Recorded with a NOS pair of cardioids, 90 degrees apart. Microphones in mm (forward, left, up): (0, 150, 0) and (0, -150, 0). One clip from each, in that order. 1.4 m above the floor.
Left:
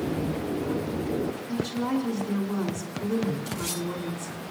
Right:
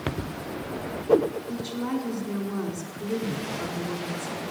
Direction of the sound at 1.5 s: 20° left.